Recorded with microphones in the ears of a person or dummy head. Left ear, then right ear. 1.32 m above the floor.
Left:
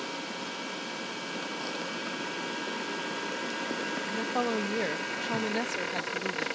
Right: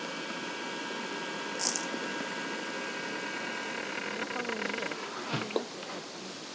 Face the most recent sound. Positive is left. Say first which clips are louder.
# left 5 dB
turn(degrees=70)  # may be behind; listen again after turning